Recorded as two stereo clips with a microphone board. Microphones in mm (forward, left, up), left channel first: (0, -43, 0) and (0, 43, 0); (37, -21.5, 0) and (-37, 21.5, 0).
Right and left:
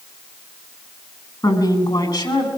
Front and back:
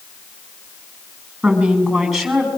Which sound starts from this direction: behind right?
A woman speaking, at 1.4 s.